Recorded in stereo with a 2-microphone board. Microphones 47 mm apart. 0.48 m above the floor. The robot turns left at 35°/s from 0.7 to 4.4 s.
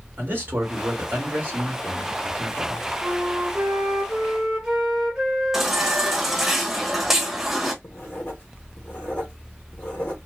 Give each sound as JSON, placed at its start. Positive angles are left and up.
{"t": 0.2, "sound": "a man speaking", "azimuth_deg": -85, "distance_m": 2.0}
{"t": 3.0, "sound": "a flute", "azimuth_deg": -115, "distance_m": 1.7}
{"t": 5.5, "sound": "a baby crying", "side_deg": -10, "distance_m": 0.9}
{"t": 7.8, "sound": "writing", "side_deg": 45, "distance_m": 1.5}